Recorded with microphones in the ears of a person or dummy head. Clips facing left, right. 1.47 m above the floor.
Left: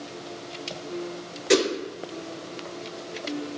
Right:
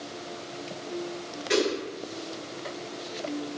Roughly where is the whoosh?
Left.